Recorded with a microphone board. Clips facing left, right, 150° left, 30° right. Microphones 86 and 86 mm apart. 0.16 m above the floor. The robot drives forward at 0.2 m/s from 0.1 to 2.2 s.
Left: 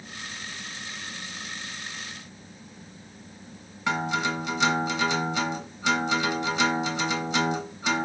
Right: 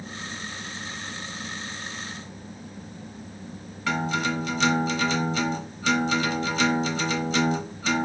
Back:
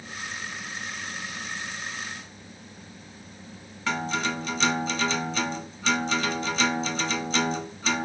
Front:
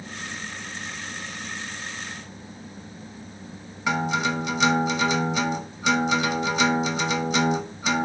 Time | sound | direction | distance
3.9 | a guitar | 35° left | 0.7 m